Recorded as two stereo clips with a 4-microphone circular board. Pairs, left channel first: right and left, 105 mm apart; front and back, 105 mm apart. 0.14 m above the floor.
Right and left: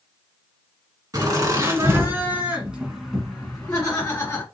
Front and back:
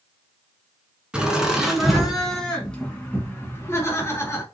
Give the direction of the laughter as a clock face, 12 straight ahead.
8 o'clock.